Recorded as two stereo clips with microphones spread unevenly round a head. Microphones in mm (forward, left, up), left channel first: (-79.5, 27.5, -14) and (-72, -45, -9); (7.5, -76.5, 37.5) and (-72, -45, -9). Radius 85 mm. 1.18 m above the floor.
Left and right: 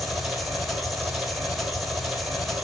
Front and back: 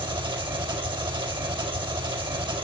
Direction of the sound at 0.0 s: 170° right.